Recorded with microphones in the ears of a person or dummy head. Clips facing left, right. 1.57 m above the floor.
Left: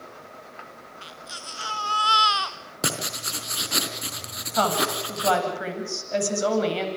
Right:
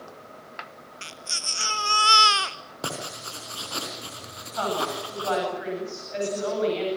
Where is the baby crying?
30° right (ahead or behind), 1.1 m.